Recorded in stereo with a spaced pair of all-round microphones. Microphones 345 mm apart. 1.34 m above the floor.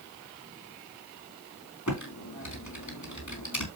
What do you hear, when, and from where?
1.9 s typing on a keyboard: 60° left (ahead or behind), 3.5 m